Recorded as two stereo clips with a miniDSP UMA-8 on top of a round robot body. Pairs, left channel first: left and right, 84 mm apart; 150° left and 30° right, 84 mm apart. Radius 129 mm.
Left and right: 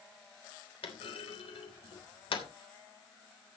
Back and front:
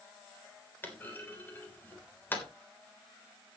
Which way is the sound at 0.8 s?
80° left.